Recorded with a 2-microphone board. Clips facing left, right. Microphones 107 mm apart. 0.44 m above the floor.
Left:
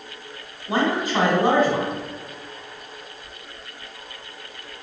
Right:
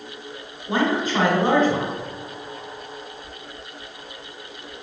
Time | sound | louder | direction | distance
0.7 | a man speaking | even | 5° left (ahead or behind) | 1.4 m